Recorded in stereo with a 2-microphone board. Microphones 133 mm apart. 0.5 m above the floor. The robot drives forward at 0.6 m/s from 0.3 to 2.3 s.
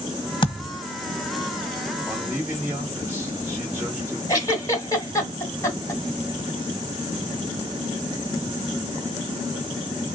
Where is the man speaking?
15° right (ahead or behind), 2.5 m.